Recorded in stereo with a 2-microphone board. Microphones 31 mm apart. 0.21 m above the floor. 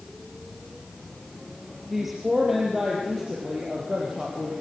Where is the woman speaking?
5° right (ahead or behind), 4.5 m; by 4.5 s 20° right (ahead or behind), 7 m.